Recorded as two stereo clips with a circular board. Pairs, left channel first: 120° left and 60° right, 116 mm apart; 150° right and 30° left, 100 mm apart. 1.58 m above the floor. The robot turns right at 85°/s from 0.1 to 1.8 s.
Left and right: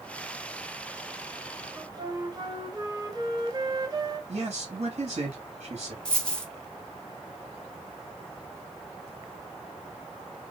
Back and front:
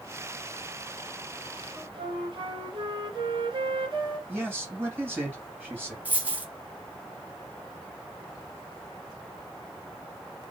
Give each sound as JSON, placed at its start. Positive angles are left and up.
{"t": 1.8, "sound": "a flute", "azimuth_deg": -10, "distance_m": 0.9}
{"t": 4.3, "sound": "a man speaking", "azimuth_deg": -40, "distance_m": 2.0}
{"t": 6.0, "sound": "a dropped coin", "azimuth_deg": 55, "distance_m": 0.8}